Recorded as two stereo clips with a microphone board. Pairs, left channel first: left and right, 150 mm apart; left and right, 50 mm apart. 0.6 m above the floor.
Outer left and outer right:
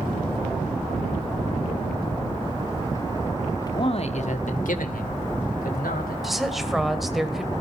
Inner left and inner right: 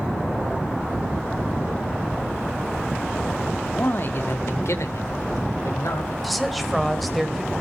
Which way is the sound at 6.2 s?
Centre (ahead or behind).